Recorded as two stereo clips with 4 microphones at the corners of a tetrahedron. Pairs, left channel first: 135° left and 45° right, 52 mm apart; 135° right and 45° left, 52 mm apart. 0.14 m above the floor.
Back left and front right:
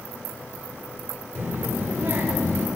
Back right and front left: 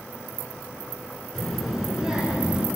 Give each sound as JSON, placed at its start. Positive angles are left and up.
{"t": 1.4, "sound": "a child speaking", "azimuth_deg": -60, "distance_m": 1.6}